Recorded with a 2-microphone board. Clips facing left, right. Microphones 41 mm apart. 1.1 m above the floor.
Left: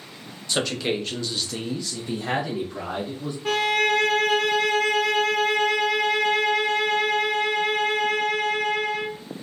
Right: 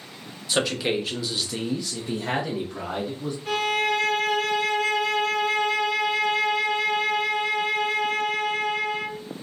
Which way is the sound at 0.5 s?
5° right (ahead or behind).